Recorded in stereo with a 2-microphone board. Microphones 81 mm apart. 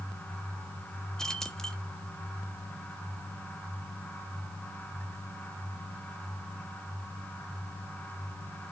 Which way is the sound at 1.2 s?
5° left (ahead or behind).